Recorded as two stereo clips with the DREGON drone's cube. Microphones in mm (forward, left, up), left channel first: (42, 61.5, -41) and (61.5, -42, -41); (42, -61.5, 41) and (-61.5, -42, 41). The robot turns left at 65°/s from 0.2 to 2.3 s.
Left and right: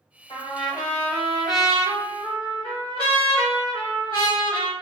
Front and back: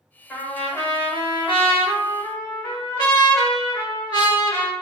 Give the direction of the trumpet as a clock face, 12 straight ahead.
9 o'clock.